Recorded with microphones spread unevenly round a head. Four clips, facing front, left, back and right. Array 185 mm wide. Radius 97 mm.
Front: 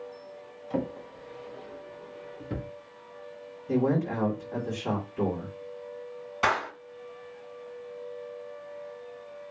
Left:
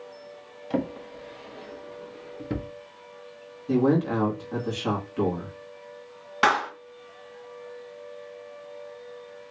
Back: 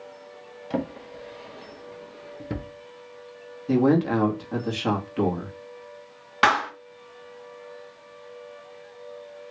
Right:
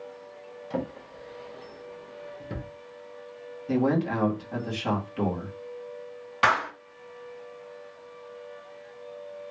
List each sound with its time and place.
0.7 s a drawer: 140° left, 0.9 m
3.7 s a man speaking: 170° left, 1.8 m
6.4 s a clap: 160° left, 2 m